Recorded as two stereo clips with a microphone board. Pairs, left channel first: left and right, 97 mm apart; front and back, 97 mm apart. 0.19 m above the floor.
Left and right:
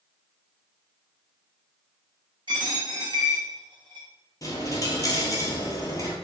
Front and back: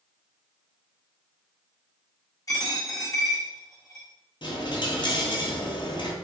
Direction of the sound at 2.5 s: 55° right.